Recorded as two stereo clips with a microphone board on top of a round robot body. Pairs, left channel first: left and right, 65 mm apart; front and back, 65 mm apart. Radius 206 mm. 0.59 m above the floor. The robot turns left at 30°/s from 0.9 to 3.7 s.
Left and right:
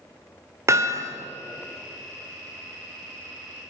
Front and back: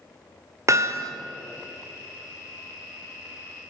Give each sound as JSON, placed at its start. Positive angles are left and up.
{"t": 0.7, "sound": "hammering", "azimuth_deg": -135, "distance_m": 2.5}